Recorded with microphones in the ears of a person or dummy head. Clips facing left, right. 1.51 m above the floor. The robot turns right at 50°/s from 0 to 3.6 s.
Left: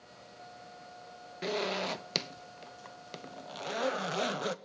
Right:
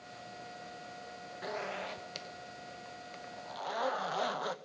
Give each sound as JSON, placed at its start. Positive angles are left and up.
{"t": 1.4, "sound": "a zipper", "azimuth_deg": 40, "distance_m": 0.8}